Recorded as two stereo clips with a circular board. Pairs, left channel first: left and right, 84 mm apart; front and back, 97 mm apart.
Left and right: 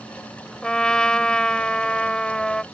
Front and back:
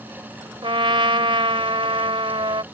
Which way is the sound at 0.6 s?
170° left.